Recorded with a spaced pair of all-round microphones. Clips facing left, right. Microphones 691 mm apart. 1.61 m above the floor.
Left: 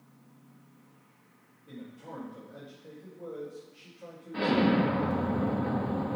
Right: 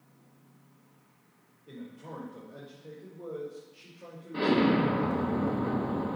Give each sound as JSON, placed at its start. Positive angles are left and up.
{"t": 1.7, "sound": "a man speaking", "side_deg": 20, "distance_m": 4.0}
{"t": 4.3, "sound": "an explosion", "side_deg": 25, "distance_m": 1.2}